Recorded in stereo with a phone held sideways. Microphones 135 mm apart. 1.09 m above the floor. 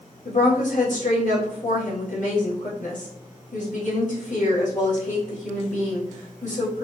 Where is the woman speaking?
65° left (ahead or behind), 1.8 m.